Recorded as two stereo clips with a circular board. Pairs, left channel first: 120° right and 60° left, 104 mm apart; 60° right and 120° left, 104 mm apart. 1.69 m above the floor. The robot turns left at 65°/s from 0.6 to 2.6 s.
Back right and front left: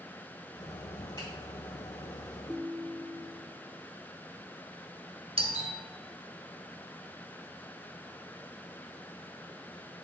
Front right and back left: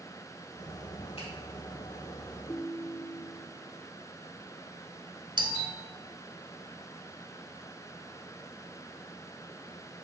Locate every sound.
1.2 s a finger snap: 70° right, 2.5 m; by 1.3 s 80° right, 2.5 m
2.5 s a ringtone: 25° right, 0.9 m; by 3.5 s 35° right, 0.9 m
5.4 s a doorbell: 80° left, 1.2 m